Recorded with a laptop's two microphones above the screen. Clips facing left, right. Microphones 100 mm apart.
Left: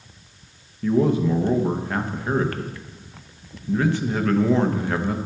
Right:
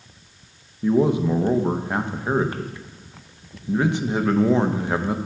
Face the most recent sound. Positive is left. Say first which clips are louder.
# right 1 dB
turn(degrees=-20)  # may be behind; listen again after turning